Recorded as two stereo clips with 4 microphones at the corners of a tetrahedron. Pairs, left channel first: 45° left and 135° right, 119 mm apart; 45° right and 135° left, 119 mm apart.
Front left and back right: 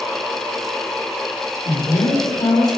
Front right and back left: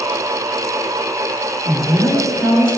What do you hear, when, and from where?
1.6 s a woman speaking: 60° left, 3 m